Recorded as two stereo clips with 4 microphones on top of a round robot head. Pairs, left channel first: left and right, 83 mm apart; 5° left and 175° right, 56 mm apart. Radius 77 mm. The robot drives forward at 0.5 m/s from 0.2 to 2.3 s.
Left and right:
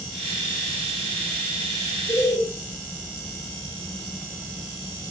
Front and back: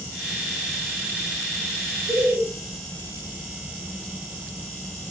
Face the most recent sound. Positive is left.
turn(degrees=135)